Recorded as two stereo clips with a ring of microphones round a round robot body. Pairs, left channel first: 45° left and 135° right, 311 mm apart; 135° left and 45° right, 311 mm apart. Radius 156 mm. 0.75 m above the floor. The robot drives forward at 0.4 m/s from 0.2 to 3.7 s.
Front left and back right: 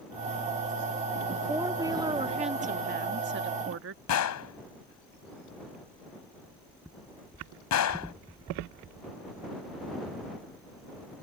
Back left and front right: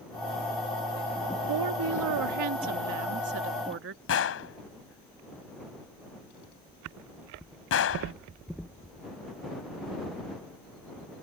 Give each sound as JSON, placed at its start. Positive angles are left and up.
{"t": 1.5, "sound": "a woman speaking", "azimuth_deg": -50}
{"t": 4.1, "sound": "a gunshot", "azimuth_deg": 85}